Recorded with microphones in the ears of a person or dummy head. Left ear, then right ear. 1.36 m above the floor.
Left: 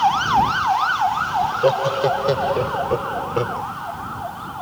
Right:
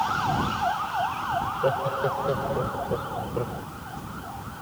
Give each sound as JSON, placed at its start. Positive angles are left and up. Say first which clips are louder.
{"t": 1.4, "sound": "laughter", "louder": "left 9 dB", "side_deg": 60}